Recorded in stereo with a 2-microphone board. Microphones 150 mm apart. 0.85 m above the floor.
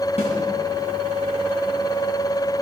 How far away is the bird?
I don't hear a bird.